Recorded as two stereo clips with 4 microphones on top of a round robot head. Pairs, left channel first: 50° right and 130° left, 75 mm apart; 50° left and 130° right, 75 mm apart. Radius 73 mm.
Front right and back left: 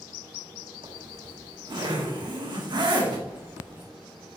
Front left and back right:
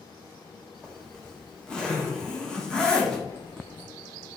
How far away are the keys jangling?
About 2.5 m.